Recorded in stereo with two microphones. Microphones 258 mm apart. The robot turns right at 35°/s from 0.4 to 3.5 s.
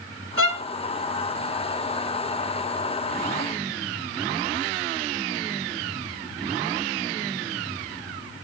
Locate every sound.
0.4 s a violin: 55° right (ahead or behind), 2.5 m; by 0.6 s 50° right (ahead or behind), 2.5 m